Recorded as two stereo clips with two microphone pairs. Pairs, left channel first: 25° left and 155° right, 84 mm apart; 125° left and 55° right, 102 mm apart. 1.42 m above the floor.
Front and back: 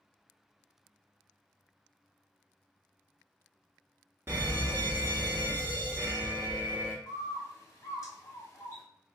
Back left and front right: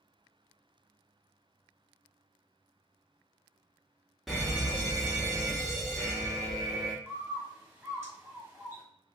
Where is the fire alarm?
145° right, 0.7 m.